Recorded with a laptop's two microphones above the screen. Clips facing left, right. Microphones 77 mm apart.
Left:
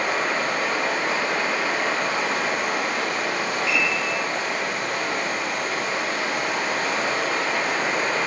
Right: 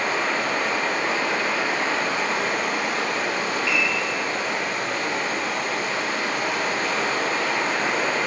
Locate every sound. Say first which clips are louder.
0.0 s running water: even; 10° left (ahead or behind), 1.8 m
3.7 s a piano: even; 20° left (ahead or behind), 0.9 m